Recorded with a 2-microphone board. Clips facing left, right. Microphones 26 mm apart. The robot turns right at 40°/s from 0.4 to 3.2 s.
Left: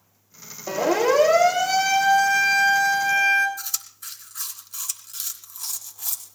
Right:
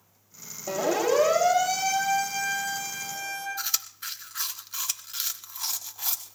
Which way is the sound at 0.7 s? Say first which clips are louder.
Left 4 dB; 40° left (ahead or behind).